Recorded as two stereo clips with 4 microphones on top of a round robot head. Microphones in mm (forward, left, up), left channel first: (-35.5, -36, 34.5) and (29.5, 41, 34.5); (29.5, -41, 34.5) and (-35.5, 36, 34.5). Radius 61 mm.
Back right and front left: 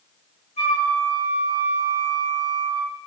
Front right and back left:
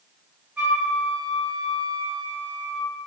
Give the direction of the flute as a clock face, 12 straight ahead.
5 o'clock.